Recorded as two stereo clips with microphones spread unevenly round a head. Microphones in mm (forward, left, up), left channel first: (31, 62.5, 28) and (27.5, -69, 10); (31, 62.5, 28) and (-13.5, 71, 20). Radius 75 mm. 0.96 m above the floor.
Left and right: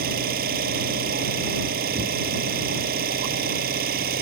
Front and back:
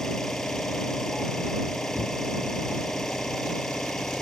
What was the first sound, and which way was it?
An engine running, 95° right.